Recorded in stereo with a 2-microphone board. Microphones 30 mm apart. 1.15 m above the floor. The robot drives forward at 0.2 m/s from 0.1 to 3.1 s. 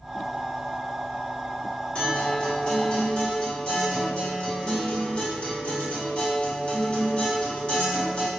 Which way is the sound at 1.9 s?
35° left (ahead or behind).